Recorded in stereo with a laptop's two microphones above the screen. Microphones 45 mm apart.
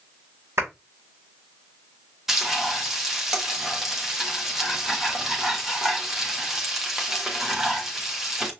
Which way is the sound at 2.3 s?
10° right (ahead or behind).